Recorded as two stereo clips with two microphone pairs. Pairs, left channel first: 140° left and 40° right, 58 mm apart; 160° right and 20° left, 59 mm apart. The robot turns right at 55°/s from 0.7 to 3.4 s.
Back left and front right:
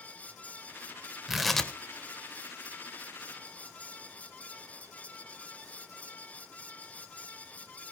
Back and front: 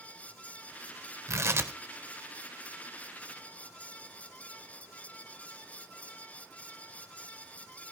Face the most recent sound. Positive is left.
turn(degrees=155)